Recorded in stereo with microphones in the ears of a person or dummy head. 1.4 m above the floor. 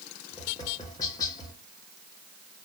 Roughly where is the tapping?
Left.